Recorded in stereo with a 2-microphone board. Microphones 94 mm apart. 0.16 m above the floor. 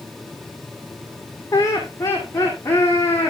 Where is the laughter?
30° left (ahead or behind), 7.5 m; by 3.3 s 25° left (ahead or behind), 10 m.